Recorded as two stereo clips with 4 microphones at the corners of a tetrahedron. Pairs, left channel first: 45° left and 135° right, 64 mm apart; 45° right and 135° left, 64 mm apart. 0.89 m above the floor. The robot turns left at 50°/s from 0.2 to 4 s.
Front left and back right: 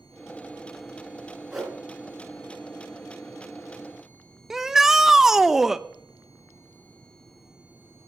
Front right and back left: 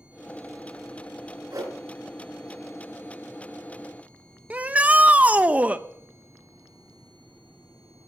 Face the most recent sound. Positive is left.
turn(degrees=150)